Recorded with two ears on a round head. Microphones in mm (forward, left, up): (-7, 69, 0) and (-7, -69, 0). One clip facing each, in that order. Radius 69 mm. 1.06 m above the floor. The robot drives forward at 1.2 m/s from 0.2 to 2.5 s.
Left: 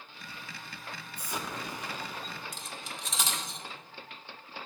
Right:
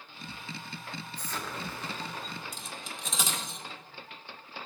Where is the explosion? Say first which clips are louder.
Left 2 dB; 10° left (ahead or behind), 0.8 m; by 2.4 s 5° left (ahead or behind), 1.1 m.